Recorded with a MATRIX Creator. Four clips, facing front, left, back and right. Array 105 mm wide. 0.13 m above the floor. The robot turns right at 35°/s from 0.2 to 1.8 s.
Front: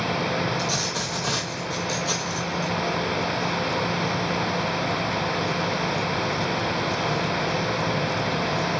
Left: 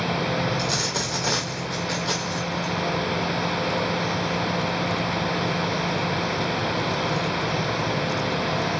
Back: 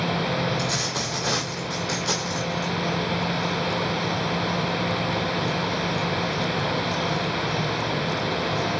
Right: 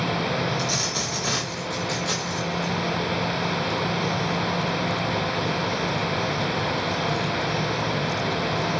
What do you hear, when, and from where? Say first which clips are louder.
0.6 s a dropped coin: left 1 dB, even; 105° left, 1.4 m; by 2.7 s 145° left, 1.4 m